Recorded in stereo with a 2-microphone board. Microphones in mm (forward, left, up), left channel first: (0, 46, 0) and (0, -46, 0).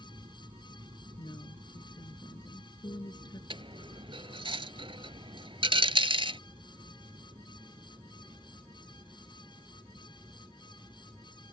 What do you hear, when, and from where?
0.0 s an aircraft: 55° right (ahead or behind); by 11.5 s 35° right (ahead or behind)
1.2 s a woman speaking: 50° left (ahead or behind)
3.5 s a dropped coin: 70° right (ahead or behind)